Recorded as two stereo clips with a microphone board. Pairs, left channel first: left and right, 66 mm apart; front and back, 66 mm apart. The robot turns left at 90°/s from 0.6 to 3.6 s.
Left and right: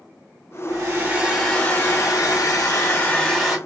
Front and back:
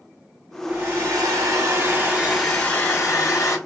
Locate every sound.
0.7 s a hair dryer: 115° right, 1.8 m; by 3.6 s 15° right, 1.8 m